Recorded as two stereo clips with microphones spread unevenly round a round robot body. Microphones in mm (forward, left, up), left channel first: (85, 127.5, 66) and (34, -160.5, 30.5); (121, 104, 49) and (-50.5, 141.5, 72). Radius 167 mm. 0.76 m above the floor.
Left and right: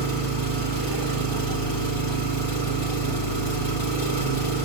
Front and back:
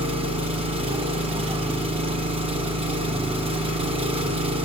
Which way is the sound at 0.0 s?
110° left.